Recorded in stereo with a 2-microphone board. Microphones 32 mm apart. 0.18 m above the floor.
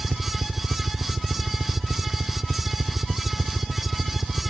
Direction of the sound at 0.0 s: 65° right (ahead or behind).